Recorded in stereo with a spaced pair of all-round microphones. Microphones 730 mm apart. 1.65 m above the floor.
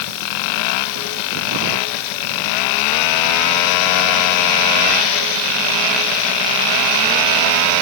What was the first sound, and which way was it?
Only background noise.